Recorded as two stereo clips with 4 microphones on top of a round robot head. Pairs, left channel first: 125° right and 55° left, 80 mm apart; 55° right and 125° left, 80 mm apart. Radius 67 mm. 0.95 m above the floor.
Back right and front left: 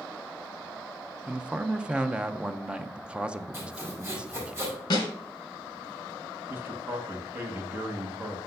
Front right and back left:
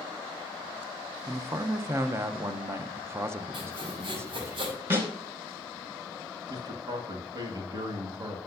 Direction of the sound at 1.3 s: 120° left.